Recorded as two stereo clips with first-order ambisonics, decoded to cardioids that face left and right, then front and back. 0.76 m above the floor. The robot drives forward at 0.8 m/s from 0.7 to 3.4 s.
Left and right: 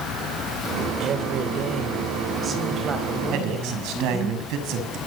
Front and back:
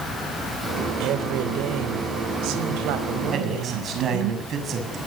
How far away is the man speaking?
About 6 m.